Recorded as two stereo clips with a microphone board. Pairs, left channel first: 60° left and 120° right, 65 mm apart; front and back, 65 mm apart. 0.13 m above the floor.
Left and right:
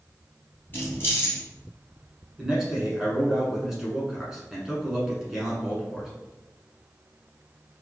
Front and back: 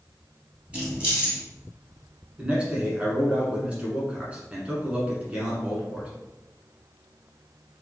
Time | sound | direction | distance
0.7 | keys jangling | 110° left | 1.6 m
2.4 | a man speaking | 175° left | 1.1 m